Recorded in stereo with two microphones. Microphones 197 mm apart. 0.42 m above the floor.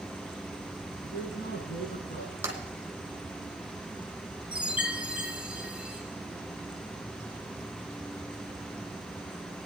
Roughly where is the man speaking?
Left.